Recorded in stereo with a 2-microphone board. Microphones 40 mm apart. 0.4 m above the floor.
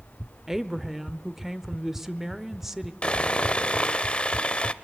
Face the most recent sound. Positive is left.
turn(degrees=30)  # may be behind; listen again after turning